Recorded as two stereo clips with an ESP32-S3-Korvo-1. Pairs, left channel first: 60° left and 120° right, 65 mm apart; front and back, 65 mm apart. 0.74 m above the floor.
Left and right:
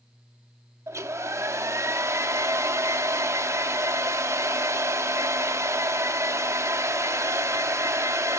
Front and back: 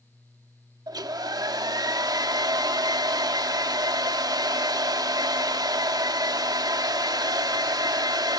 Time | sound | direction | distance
0.9 | a hair dryer | 165° right | 0.8 m